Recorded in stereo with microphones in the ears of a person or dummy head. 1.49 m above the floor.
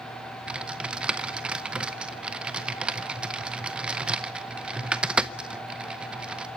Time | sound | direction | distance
0.5 | typing on a keyboard | 5° right (ahead or behind) | 0.8 m